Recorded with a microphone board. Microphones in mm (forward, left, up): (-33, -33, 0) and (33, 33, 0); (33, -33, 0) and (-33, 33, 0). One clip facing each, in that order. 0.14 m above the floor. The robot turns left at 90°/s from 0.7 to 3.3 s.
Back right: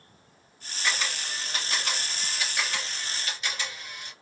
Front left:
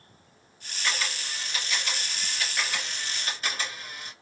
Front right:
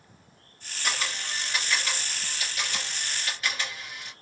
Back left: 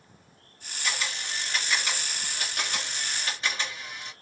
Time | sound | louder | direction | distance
0.8 | a camera shutter | back right 1 dB, front right 1 dB | 60° right | 2.5 m